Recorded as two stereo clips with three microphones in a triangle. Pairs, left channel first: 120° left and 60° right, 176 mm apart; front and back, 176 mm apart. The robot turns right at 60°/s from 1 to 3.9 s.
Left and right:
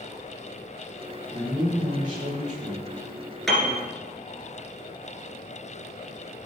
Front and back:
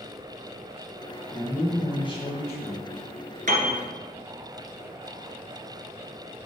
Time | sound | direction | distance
1.3 | a man speaking | 95° right | 1.8 m
3.5 | a piano | 155° right | 2 m